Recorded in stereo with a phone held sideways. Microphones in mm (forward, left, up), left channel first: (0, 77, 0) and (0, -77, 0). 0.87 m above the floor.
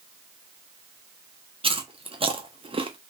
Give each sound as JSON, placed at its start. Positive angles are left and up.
{"t": 1.6, "sound": "chewing", "side_deg": -35, "distance_m": 0.6}